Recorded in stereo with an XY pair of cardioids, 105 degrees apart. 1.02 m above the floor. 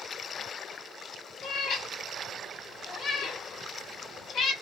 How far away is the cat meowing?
About 0.9 m.